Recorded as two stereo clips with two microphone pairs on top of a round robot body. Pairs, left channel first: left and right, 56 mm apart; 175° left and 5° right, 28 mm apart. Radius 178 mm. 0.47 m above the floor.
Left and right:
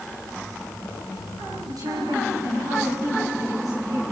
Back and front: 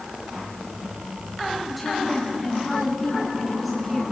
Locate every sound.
1.7 s a woman speaking: 90° right, 7.5 m